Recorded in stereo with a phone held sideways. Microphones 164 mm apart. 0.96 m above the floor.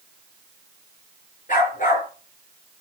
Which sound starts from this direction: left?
A dog barking, at 1.5 s.